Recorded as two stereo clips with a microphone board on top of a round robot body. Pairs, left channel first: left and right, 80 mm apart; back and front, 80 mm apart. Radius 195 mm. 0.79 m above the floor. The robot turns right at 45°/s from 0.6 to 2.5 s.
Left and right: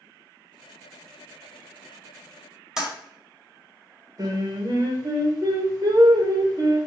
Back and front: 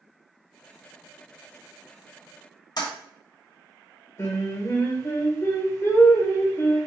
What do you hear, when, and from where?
2.8 s a toilet flushing: 175° right, 1.4 m
4.2 s singing: 125° right, 1.4 m